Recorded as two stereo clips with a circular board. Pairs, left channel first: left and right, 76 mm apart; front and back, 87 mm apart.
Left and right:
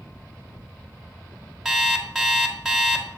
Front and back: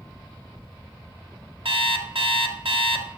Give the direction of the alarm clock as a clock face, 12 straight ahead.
6 o'clock.